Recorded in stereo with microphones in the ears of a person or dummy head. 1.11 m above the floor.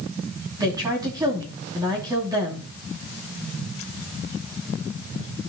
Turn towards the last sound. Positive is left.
turn(degrees=-20)  # may be behind; listen again after turning